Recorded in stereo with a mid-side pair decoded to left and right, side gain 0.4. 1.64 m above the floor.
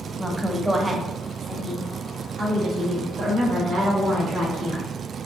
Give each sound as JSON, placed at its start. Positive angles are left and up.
{"t": 0.2, "sound": "a woman speaking", "azimuth_deg": -5, "distance_m": 1.0}